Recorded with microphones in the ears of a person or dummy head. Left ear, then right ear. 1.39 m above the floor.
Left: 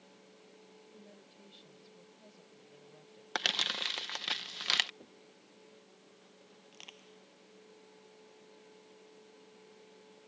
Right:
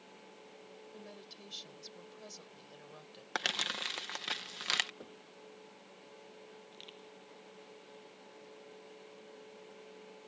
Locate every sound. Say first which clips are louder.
0.9 s a woman speaking: right 6 dB; 55° right (ahead or behind)
3.4 s crumpling: left 3 dB; 5° left (ahead or behind)
5.0 s knocking: right 5 dB; 60° right (ahead or behind)
6.7 s crushing: left 4 dB; 35° left (ahead or behind)